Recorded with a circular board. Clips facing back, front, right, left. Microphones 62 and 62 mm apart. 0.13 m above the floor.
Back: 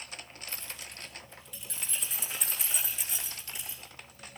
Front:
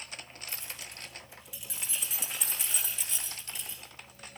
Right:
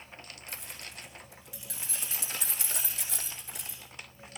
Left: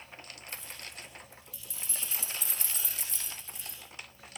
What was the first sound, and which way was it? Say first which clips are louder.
Keys jangling: back 1 dB, right 1 dB; 75° right.